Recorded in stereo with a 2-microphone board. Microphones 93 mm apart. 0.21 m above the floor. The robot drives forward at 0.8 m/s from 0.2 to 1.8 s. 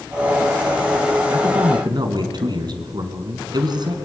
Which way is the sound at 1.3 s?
55° right (ahead or behind).